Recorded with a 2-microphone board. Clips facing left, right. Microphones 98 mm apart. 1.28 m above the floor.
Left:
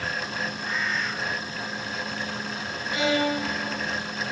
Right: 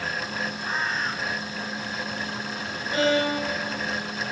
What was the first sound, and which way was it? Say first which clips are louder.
A bird: right 2 dB; 35° right (ahead or behind).